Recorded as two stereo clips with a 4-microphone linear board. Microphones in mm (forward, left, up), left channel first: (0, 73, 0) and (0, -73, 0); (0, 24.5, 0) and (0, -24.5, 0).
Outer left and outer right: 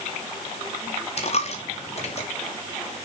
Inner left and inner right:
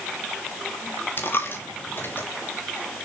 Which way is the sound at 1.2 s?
50° left (ahead or behind).